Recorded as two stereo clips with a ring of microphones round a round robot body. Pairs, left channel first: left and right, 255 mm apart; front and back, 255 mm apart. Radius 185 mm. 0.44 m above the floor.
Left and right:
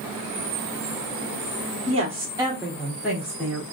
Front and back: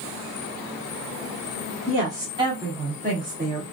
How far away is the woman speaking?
About 1.1 m.